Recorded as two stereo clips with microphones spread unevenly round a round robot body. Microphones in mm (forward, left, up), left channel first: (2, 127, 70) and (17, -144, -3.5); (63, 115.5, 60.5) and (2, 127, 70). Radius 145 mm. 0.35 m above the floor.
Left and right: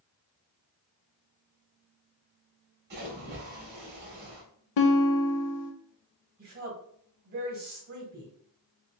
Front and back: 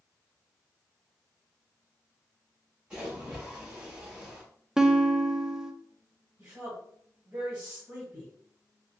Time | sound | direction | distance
2.9 | a splash | 110° right | 1.4 m
4.8 | a guitar | 85° left | 0.6 m
6.4 | a woman speaking | 125° right | 1.6 m